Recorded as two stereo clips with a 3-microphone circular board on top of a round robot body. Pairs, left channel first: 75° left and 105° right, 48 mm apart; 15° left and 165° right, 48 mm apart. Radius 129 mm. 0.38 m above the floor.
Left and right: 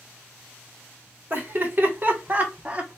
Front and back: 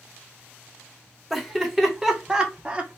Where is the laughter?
75° right, 2 m; by 3.0 s 150° right, 1.3 m.